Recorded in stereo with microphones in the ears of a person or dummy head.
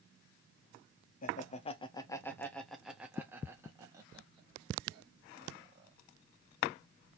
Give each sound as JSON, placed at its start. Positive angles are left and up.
{"t": 1.2, "sound": "laughter", "side_deg": 40, "distance_m": 0.9}